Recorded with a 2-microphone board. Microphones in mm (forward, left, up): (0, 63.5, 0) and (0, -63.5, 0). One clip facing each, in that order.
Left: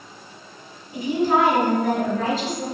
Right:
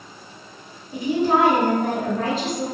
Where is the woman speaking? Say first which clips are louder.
Right 1 dB; 50° right (ahead or behind), 1.6 m.